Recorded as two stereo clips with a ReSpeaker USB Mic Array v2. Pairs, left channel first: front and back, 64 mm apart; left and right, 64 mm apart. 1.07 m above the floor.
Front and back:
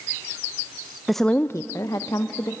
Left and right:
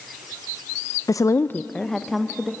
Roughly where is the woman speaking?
Left.